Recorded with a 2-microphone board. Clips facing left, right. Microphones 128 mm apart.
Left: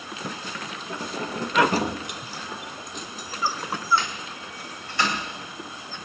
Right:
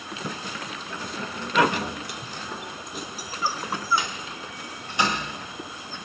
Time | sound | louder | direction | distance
0.9 | keys jangling | left 5 dB | 40° left (ahead or behind) | 1.1 m